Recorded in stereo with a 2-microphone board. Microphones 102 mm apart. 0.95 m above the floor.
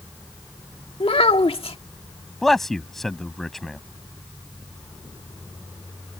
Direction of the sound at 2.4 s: 5° left (ahead or behind).